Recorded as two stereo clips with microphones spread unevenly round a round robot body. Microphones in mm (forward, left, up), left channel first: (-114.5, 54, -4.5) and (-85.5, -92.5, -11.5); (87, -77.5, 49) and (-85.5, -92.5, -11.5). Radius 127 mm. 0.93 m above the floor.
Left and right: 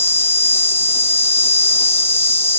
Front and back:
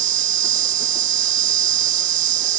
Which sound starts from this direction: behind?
An insect, at 0.0 s.